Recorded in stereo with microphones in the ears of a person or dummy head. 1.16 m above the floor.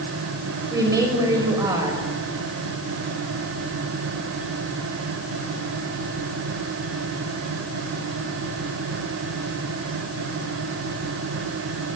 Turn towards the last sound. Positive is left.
turn(degrees=-20)  # may be behind; listen again after turning